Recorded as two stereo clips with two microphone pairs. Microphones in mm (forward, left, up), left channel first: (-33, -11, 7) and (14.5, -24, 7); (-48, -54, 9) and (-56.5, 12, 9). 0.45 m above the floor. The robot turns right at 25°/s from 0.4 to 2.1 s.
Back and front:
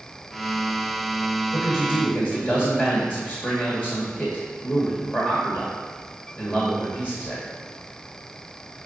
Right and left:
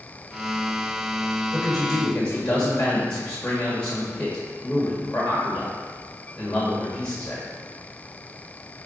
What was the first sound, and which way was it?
A man speaking, 165° right.